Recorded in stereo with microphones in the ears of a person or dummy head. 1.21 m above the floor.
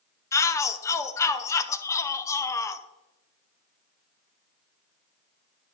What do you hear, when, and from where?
0.3 s a shout: 15° left (ahead or behind), 0.6 m